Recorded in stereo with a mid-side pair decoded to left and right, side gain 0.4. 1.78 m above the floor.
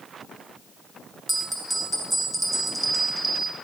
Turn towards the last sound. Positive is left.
turn(degrees=-10)